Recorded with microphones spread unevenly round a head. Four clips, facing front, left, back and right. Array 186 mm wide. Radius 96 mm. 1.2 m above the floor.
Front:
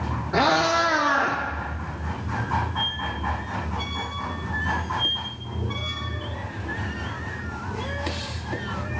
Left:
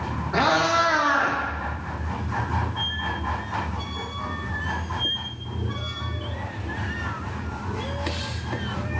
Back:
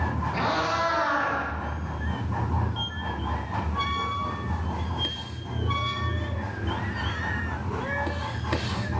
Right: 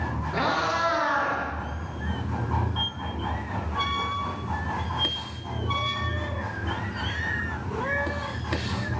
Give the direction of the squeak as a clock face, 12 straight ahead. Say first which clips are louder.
Left 3 dB, front 3 dB; 3 o'clock.